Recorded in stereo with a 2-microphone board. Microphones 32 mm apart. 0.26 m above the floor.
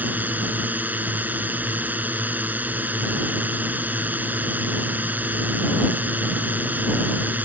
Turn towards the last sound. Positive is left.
turn(degrees=-65)  # may be behind; listen again after turning